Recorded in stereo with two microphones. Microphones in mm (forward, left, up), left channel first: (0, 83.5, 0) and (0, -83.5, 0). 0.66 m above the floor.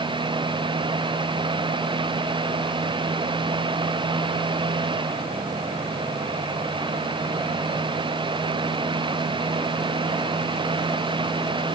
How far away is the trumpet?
No trumpet in this recording.